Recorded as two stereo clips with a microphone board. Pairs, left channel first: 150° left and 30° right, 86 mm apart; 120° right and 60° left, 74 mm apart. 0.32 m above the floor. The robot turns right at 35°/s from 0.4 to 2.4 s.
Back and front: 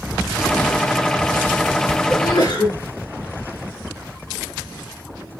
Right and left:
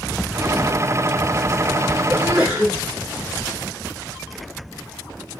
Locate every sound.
2.1 s a sneeze: 125° left, 5.5 m; by 2.8 s 140° left, 5.5 m